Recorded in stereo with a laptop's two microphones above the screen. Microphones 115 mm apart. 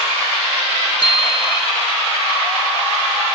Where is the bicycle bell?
50° left (ahead or behind).